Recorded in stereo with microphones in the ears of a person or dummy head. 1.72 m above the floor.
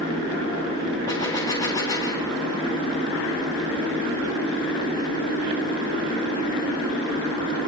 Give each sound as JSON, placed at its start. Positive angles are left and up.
{"t": 1.1, "sound": "a gunshot", "side_deg": 15, "distance_m": 1.5}